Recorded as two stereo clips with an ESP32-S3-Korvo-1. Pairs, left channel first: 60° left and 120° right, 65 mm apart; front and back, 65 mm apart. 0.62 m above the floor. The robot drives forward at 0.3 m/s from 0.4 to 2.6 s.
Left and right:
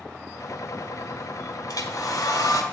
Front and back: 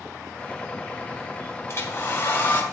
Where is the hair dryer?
50° left, 1.4 m; by 2.6 s 60° left, 1.2 m.